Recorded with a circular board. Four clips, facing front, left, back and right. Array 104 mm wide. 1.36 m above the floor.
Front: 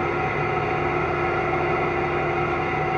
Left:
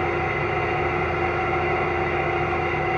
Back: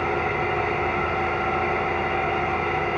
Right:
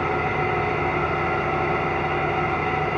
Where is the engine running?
130° right, 1.7 m.